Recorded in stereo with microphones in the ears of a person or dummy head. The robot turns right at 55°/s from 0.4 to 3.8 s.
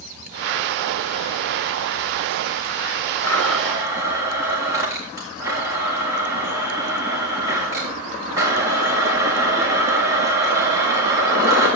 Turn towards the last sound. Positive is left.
turn(degrees=-160)